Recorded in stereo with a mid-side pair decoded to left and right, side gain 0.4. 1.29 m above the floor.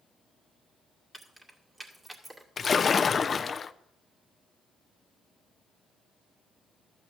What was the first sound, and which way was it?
Keys jangling, 20° right.